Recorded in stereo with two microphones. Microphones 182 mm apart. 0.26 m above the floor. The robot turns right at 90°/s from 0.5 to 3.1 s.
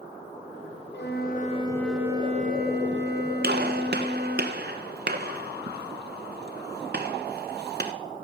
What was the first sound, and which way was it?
A flute, 90° left.